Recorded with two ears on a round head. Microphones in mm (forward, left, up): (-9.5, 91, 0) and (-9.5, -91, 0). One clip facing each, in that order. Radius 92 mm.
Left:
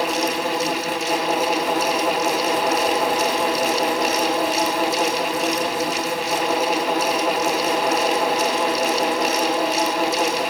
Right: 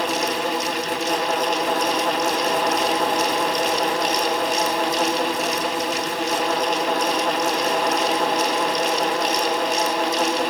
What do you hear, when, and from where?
Only background noise.